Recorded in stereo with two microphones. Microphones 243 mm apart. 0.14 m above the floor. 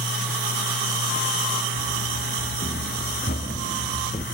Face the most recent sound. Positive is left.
turn(degrees=30)  # may be behind; listen again after turning